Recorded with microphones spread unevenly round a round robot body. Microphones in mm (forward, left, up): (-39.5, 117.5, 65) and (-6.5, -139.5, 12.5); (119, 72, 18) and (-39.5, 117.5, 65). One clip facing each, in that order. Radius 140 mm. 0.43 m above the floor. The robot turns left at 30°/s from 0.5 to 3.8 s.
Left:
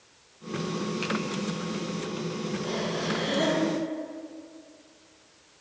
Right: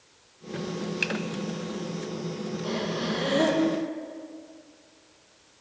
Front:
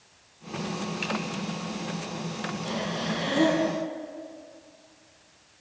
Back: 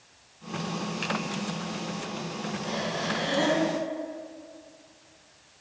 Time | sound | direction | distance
1.0 | a finger snap | 75° right | 1.5 m
2.6 | breathing | 30° right | 4.5 m